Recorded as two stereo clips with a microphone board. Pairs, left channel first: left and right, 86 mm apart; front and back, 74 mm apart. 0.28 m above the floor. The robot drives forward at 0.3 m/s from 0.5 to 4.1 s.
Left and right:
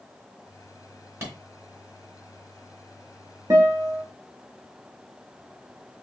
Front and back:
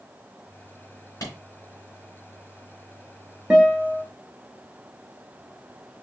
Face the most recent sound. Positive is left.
turn(degrees=-115)